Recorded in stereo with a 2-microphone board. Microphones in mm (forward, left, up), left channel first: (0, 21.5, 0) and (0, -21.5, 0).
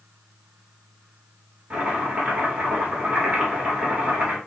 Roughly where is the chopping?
Right.